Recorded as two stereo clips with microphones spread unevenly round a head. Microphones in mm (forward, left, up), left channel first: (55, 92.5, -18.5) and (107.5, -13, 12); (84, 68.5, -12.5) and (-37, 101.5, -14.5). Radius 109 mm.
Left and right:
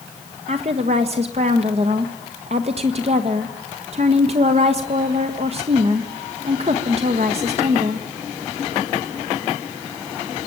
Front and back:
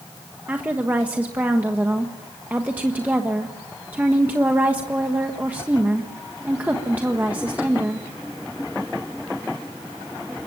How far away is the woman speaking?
About 1.2 m.